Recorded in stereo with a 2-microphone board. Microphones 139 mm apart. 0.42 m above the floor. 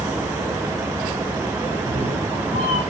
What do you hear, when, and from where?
1.7 s a cat meowing: 85° right, 5.5 m; by 2.8 s 80° right, 4.5 m